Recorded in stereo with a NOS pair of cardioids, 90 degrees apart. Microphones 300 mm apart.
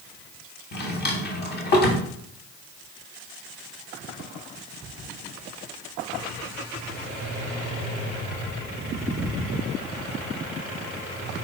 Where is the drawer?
35° left, 2 m.